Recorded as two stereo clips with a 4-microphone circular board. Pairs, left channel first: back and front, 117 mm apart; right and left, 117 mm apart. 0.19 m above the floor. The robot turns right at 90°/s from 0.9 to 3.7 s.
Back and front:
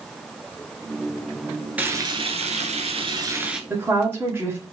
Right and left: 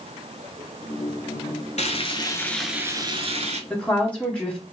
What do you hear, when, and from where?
1.8 s frying: 75° right, 0.7 m; by 3.6 s 85° left, 0.7 m
3.7 s a woman speaking: 30° right, 1.0 m